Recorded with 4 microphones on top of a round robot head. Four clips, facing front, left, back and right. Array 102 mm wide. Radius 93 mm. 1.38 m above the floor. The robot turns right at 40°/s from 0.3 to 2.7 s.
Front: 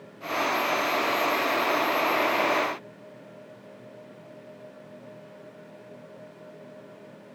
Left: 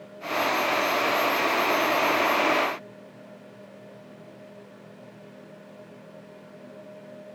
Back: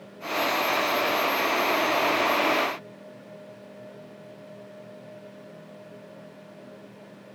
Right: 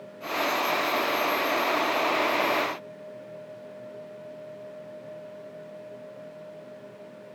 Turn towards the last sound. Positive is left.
No sound to turn to.